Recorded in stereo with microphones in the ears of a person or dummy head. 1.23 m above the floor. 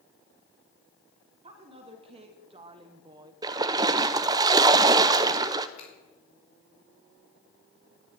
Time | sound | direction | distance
1.4 | a woman speaking | 35° right (ahead or behind) | 3 m
3.4 | a splash | 15° right (ahead or behind) | 0.6 m
5.8 | a finger snap | 40° left (ahead or behind) | 4.5 m